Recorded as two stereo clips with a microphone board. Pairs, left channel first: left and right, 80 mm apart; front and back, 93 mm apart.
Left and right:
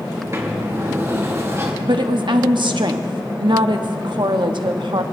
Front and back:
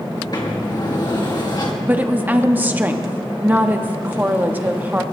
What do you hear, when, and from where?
0.1 s a sliding door: 40° right, 2 m
1.8 s a woman speaking: 110° right, 1.1 m